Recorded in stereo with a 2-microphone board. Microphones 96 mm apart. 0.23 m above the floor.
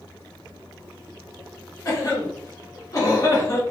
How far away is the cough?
About 1.6 m.